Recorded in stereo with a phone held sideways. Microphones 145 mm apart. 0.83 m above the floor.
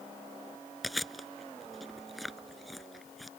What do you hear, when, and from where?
0.8 s chewing: centre (ahead or behind)